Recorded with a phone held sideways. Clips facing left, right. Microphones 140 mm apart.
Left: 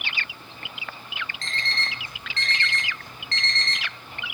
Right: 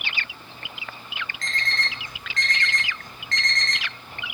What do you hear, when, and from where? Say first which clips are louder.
1.4 s an alarm clock: right 3 dB; 30° left (ahead or behind), 1.7 m